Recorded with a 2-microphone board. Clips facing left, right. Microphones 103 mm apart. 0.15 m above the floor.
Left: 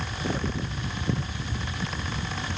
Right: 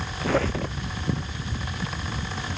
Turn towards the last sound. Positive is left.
turn(degrees=-80)